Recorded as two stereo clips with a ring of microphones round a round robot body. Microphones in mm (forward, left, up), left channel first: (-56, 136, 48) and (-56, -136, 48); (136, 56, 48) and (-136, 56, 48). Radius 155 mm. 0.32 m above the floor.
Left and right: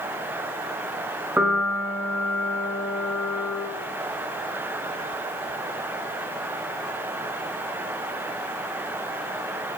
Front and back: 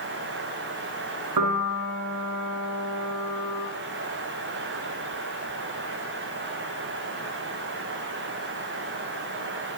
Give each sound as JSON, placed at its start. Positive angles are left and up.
{"t": 1.4, "sound": "a piano", "azimuth_deg": -175, "distance_m": 2.0}